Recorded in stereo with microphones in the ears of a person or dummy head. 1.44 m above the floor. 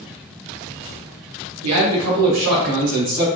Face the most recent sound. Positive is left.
turn(degrees=-75)  # may be behind; listen again after turning